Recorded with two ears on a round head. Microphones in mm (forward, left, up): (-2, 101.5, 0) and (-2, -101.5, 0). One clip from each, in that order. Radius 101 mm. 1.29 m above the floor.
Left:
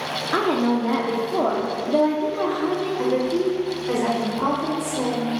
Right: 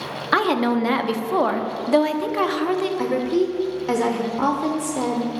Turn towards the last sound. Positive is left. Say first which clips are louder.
# even
turn(degrees=-35)  # may be behind; listen again after turning